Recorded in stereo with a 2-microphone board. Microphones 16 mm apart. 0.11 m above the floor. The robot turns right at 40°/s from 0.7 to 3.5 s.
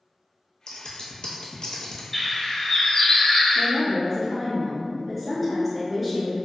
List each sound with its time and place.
0.7 s scissors: 65° left (ahead or behind), 0.5 m; by 2.0 s 45° left (ahead or behind), 0.5 m
2.1 s a bird: 30° left, 0.7 m; by 3.7 s 80° left, 0.7 m
3.5 s a woman speaking: 5° right (ahead or behind), 1.2 m